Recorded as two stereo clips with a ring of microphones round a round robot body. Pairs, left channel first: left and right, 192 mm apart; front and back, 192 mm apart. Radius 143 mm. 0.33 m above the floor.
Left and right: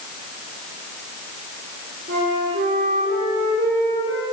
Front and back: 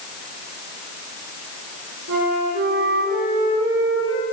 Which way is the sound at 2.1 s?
145° right.